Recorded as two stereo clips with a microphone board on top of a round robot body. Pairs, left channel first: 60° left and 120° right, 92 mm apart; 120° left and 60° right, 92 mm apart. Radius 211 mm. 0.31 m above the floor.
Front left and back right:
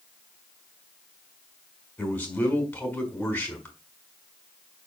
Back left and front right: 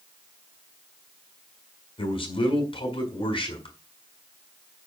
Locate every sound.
2.0 s a man speaking: 135° left, 5.5 m